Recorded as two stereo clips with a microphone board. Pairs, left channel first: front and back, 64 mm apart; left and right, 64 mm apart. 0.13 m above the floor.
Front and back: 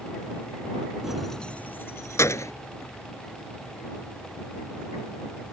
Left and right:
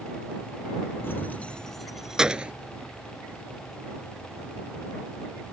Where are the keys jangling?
105° left; by 2.5 s 20° right.